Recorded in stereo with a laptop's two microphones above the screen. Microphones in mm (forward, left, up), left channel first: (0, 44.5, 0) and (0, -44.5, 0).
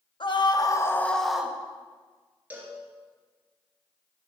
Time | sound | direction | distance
0.2 | a scream | 60° left (ahead or behind) | 1.6 m
2.5 | a cowbell | 15° right (ahead or behind) | 3 m